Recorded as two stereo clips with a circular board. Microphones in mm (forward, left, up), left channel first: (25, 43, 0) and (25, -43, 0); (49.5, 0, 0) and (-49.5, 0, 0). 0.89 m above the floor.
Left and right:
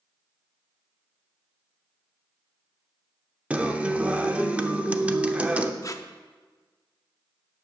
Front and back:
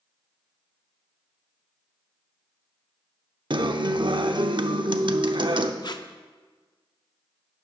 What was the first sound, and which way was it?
A guitar, 160° right.